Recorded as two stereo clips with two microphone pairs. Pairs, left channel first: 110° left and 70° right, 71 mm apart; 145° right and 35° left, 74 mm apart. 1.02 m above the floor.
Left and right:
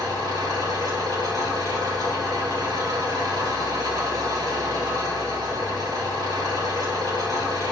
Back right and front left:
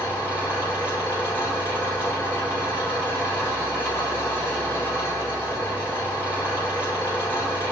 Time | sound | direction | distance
0.0 | an engine running | 85° right | 3 m